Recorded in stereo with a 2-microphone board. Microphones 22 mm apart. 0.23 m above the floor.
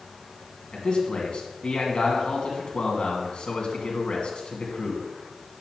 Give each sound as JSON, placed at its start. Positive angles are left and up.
{"t": 0.7, "sound": "a man speaking", "side_deg": 50, "distance_m": 2.5}